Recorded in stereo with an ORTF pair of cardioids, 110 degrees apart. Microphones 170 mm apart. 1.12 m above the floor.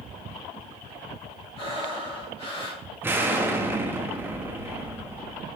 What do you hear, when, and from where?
1.6 s breathing: 35° left, 3.5 m
3.0 s an explosion: 10° right, 1.0 m